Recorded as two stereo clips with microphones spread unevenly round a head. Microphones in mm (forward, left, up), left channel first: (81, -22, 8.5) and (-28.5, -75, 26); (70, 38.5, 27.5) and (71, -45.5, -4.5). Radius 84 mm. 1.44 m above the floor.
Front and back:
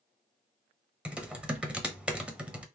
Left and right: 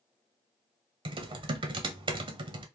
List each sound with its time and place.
1.1 s typing on a keyboard: 70° right, 0.8 m